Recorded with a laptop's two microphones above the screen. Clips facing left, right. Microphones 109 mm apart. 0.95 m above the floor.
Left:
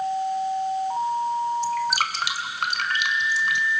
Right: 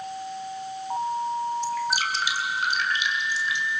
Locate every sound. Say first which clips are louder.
1.6 s dripping: left 2 dB; 70° left (ahead or behind), 1.9 m